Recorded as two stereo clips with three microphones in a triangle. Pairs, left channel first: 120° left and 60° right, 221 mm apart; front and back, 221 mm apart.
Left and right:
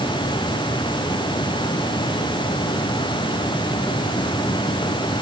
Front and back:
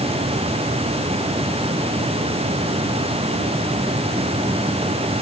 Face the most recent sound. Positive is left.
No sound to turn to.